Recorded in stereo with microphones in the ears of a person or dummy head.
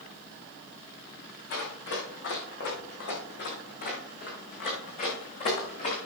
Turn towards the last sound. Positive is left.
turn(degrees=40)  # may be behind; listen again after turning